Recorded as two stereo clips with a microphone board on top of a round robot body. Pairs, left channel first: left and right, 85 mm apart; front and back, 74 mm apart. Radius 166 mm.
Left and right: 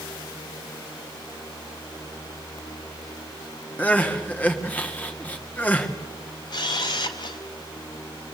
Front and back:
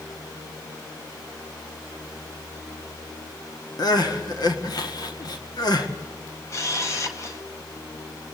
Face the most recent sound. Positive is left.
turn(degrees=50)